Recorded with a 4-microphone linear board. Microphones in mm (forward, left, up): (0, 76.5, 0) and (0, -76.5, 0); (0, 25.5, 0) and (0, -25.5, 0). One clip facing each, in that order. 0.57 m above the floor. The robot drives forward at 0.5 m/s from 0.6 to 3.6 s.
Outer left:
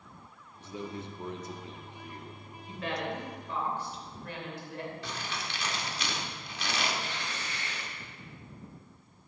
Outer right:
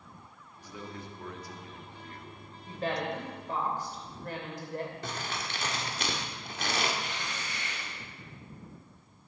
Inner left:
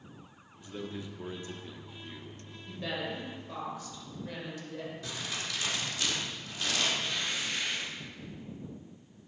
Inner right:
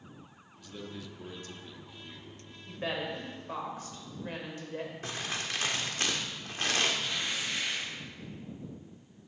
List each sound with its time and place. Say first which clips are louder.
0.6 s a man speaking: outer left 4 dB, inner left 3 dB; 25° left (ahead or behind), 1.0 m; by 2.4 s 15° left (ahead or behind), 1.3 m
2.7 s a woman speaking: outer right 2 dB, inner right 1 dB; 35° right (ahead or behind), 3 m; by 4.9 s 40° right (ahead or behind), 2.5 m
5.0 s crumpling: outer right 1 dB, inner right 2 dB; 45° right (ahead or behind), 1.6 m
7.0 s tearing paper: even, even; 20° right (ahead or behind), 5 m